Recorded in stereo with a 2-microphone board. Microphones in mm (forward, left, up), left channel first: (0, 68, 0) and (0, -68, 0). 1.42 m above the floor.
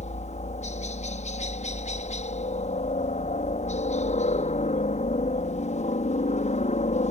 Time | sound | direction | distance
0.0 | a helicopter | 60° left (ahead or behind) | ?